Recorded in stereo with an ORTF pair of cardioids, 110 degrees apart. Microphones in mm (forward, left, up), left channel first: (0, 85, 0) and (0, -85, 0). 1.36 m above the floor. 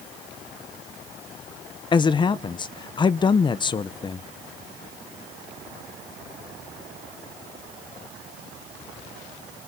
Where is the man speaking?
25° left, 0.7 m.